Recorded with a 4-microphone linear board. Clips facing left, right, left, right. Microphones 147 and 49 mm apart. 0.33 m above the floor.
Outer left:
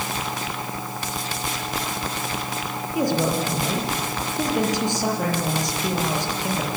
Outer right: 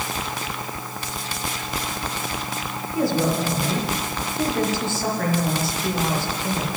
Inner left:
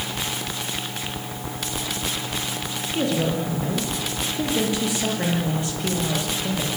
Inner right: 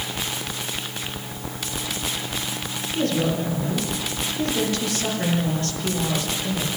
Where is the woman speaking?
15° left (ahead or behind), 8 m.